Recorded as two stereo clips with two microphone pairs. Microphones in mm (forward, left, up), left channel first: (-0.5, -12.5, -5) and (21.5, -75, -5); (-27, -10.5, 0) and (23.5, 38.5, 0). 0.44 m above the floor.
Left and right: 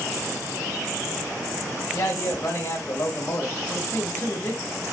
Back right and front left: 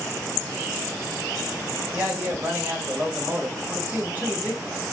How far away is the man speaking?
About 1.8 m.